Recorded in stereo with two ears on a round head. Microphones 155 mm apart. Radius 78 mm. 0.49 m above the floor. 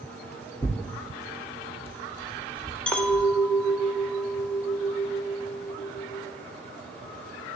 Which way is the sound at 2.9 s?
5° left (ahead or behind).